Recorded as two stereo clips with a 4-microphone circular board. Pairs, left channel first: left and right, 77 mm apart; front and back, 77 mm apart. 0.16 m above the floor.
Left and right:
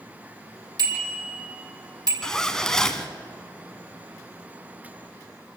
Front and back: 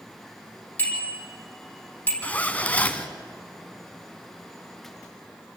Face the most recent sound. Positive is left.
turn(degrees=20)